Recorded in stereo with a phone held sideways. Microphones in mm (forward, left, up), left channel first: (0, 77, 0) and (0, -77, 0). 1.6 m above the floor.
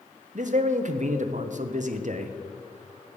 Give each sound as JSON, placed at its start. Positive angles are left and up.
{"t": 0.3, "sound": "a man speaking", "side_deg": -55, "distance_m": 0.8}